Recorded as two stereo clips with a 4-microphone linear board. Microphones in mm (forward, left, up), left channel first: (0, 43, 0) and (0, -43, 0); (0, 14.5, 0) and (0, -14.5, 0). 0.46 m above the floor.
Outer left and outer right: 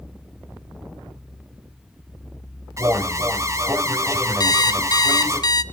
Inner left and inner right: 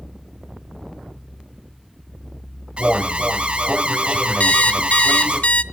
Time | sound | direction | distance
2.8 | an alarm | 35° right (ahead or behind) | 1.9 m
4.4 | an alarm clock | 55° left (ahead or behind) | 0.7 m